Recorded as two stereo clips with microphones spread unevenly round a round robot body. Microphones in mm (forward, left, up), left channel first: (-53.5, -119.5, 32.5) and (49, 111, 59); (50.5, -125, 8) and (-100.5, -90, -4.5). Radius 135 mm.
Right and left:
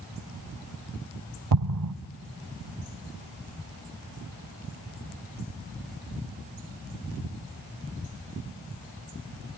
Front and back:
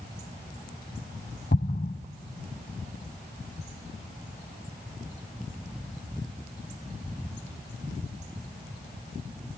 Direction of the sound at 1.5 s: 45° left.